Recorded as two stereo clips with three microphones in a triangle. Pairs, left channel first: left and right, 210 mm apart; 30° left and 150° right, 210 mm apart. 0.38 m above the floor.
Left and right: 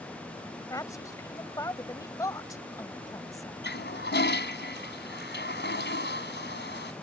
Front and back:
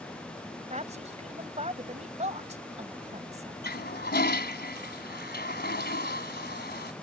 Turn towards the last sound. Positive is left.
turn(degrees=65)